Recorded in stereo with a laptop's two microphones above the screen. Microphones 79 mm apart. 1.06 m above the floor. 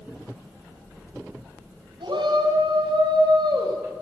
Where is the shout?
90° right, 5 m; by 3.8 s 65° right (ahead or behind), 4 m.